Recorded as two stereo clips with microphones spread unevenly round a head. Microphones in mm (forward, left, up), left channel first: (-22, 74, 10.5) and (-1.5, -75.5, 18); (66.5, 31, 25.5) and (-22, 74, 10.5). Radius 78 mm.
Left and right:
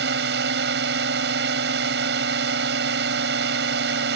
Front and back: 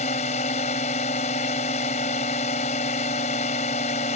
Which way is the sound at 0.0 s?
60° right.